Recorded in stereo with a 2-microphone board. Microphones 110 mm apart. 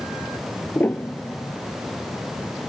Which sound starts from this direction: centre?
A piano, at 0.8 s.